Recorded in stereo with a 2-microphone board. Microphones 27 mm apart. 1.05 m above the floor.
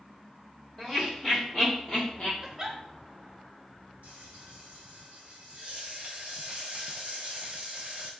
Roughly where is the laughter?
Centre.